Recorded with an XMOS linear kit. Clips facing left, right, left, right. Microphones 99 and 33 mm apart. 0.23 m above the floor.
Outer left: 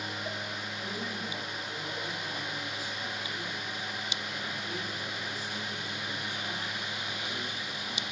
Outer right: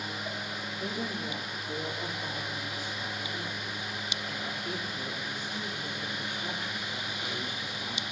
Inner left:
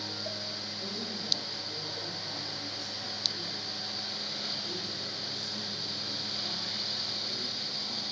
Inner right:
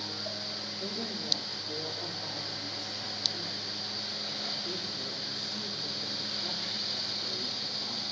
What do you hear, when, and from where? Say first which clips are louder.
0.8 s a woman speaking: outer right 4 dB, inner right 2 dB; 65° right (ahead or behind), 5.5 m